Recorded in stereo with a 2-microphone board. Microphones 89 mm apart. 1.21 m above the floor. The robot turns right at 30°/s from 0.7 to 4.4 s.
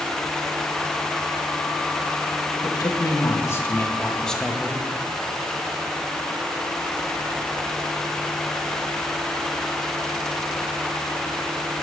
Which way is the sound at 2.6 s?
120° left.